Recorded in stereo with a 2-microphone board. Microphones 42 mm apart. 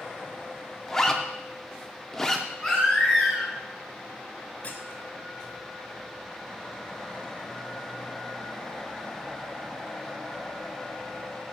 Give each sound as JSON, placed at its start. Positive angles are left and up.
{"t": 0.9, "sound": "a zipper", "side_deg": 10, "distance_m": 0.6}
{"t": 2.6, "sound": "a baby crying", "side_deg": 10, "distance_m": 2.0}
{"t": 4.6, "sound": "a squeak", "side_deg": 35, "distance_m": 0.8}